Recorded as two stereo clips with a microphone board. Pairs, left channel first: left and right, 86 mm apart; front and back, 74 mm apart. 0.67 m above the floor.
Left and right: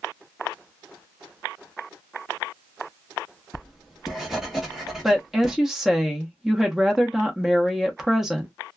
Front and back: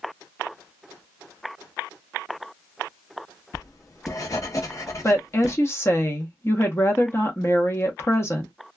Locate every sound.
3.5 s writing: 5° right, 1.0 m
5.0 s a woman speaking: 5° right, 0.9 m